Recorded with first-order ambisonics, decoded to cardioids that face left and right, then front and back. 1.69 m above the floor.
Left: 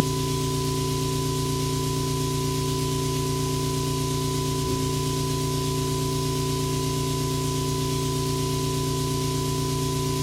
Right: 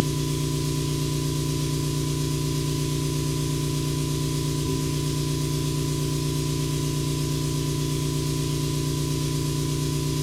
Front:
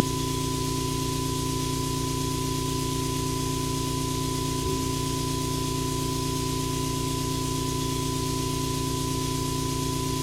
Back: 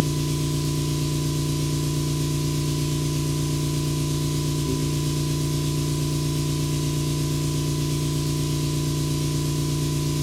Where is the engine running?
115° left, 0.9 m.